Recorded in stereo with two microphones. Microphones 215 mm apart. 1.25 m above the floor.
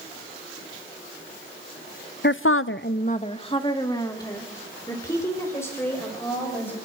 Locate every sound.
2.2 s a woman speaking: 55° left (ahead or behind), 0.6 m; by 6.8 s 10° left (ahead or behind), 6 m